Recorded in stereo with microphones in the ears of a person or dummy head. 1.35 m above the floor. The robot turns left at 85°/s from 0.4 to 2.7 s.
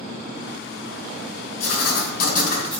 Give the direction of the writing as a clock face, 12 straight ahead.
8 o'clock.